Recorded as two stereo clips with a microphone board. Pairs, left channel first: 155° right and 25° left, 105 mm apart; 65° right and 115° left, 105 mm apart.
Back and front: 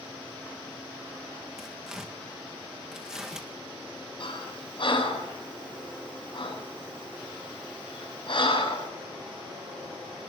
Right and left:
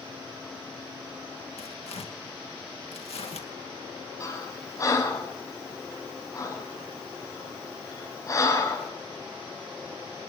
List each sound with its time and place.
1.6 s tearing paper: 60° right, 2 m
4.2 s breathing: 125° right, 7 m